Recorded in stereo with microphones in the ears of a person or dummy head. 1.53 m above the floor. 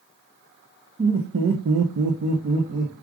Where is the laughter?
25° right (ahead or behind), 0.7 m; by 2.9 s 55° right (ahead or behind), 1.0 m.